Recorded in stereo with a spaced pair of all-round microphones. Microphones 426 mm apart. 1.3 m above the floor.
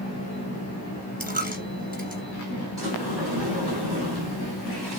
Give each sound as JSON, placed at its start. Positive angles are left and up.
{"t": 1.2, "sound": "a dropped coin", "side_deg": -20, "distance_m": 1.4}
{"t": 2.8, "sound": "a sliding door", "side_deg": -55, "distance_m": 2.5}